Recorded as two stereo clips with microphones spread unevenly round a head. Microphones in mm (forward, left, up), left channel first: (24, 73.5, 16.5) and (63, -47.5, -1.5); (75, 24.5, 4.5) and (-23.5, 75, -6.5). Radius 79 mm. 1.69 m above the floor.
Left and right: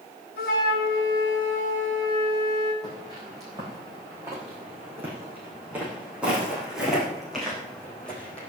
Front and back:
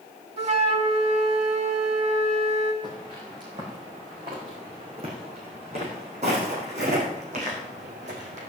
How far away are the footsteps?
About 6 m.